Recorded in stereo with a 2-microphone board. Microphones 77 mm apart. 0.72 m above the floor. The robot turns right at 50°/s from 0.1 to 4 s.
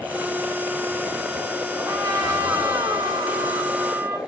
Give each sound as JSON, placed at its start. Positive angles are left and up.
{"t": 1.8, "sound": "a trumpet", "azimuth_deg": -150, "distance_m": 2.5}